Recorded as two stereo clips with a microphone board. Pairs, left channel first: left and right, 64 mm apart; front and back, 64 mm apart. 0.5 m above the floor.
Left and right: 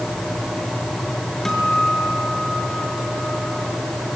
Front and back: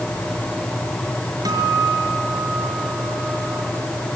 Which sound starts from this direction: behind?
A guitar, at 1.4 s.